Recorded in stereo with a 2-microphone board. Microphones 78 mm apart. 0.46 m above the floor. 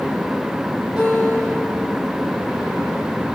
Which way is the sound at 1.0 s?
10° right (ahead or behind).